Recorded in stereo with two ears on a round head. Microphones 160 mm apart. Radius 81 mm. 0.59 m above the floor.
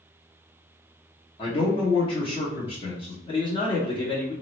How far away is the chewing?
No chewing in this recording.